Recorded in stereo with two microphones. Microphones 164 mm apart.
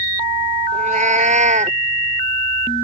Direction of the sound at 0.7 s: 50° right (ahead or behind).